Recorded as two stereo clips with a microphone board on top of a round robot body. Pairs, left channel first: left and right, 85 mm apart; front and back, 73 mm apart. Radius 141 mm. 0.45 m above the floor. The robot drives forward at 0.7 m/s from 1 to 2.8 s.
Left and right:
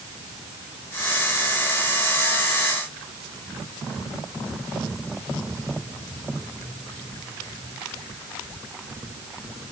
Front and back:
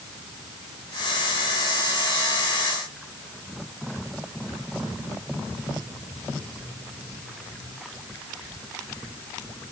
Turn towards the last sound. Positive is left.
No sound to turn to.